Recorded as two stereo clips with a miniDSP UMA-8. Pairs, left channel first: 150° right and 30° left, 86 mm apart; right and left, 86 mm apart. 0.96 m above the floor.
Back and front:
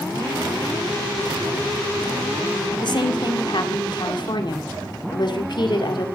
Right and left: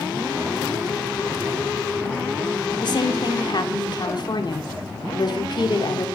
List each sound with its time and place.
2.8 s a woman speaking: 120° right, 2 m